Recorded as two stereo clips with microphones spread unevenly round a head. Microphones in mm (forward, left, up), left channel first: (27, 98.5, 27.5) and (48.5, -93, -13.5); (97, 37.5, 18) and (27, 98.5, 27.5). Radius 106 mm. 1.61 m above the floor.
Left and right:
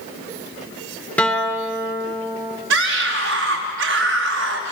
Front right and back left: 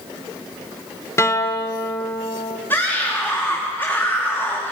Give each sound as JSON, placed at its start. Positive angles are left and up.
{"t": 1.2, "sound": "a guitar", "azimuth_deg": 20, "distance_m": 2.5}
{"t": 2.7, "sound": "a scream", "azimuth_deg": -120, "distance_m": 3.0}